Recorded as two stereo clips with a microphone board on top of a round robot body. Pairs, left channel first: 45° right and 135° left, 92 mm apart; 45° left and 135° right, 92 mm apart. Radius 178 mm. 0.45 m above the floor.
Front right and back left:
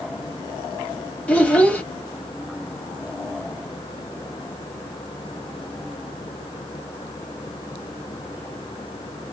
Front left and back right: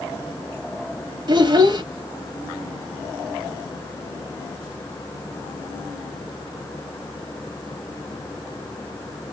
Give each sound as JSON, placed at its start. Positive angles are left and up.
{"t": 1.3, "sound": "a child speaking", "azimuth_deg": -120, "distance_m": 1.2}